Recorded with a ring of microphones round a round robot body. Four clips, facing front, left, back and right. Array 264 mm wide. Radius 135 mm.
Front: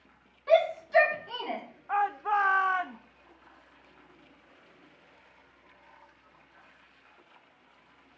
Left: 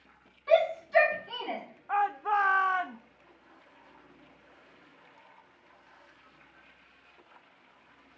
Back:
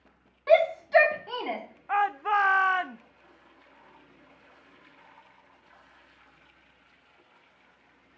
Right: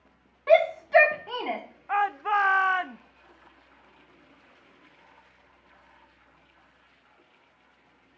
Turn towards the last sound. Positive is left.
turn(degrees=-135)